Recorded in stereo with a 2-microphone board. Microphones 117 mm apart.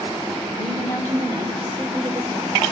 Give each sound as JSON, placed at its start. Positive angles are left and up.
{"t": 0.5, "sound": "a woman speaking", "side_deg": -20, "distance_m": 4.0}